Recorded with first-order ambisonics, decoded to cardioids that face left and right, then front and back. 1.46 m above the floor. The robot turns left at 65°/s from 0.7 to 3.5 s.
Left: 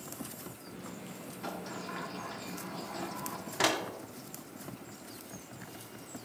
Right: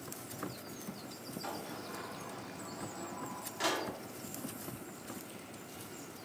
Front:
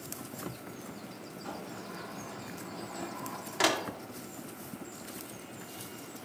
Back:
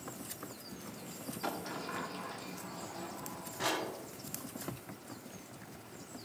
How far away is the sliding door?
About 0.8 m.